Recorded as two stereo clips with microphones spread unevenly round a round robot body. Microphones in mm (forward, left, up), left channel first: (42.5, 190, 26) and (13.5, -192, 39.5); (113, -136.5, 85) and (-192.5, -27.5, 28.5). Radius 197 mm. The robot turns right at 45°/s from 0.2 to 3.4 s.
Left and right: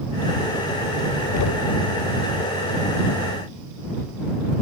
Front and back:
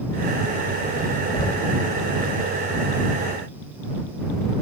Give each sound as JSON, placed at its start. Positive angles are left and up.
{"t": 1.3, "sound": "knocking", "azimuth_deg": 60}